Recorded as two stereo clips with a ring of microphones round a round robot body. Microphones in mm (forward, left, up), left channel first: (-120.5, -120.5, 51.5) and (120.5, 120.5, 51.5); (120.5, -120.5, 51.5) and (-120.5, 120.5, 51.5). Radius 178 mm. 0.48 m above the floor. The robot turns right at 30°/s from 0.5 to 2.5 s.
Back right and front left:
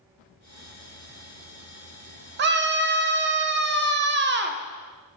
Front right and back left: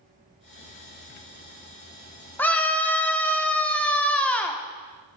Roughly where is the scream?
Ahead left.